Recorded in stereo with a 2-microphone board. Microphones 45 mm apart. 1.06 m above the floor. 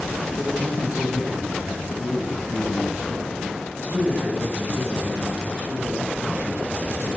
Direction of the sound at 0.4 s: 25° right (ahead or behind).